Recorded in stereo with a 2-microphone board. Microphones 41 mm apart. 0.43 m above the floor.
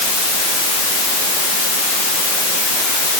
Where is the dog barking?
No dog barking in this recording.